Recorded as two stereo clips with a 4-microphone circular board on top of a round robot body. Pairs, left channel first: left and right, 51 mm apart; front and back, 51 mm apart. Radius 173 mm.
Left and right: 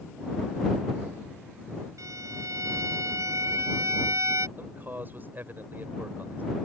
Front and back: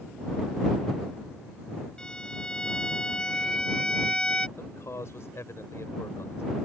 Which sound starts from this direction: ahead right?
A man speaking, at 4.6 s.